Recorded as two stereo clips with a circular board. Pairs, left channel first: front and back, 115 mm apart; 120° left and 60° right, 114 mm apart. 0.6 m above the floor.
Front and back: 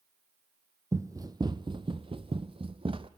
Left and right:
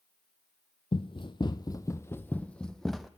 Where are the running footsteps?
125° left, 0.9 m; by 3.1 s 150° right, 1.2 m.